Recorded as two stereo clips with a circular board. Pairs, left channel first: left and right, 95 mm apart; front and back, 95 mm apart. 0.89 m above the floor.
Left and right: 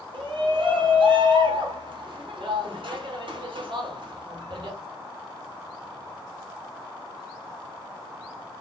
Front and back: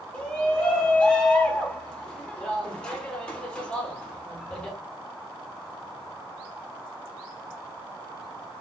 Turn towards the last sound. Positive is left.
turn(degrees=-80)